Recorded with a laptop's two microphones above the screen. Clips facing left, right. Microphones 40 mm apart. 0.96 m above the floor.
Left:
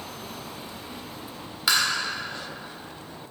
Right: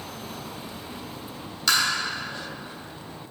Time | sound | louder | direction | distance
1.7 | tapping | even | 15° left (ahead or behind) | 1.8 m